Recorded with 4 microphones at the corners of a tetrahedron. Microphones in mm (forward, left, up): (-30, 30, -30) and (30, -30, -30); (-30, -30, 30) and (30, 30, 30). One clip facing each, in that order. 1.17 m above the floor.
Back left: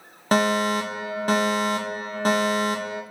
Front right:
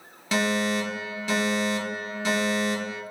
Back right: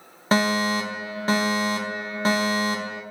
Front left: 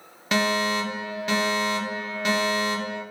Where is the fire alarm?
170° left, 2.5 m.